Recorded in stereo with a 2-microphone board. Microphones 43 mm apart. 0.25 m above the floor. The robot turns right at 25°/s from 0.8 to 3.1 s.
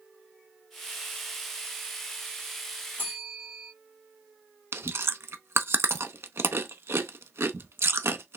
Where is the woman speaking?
No woman speaking in this recording.